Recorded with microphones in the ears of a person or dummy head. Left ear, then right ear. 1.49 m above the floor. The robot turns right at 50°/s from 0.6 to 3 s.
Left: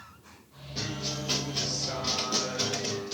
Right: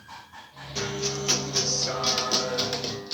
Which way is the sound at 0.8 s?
140° right.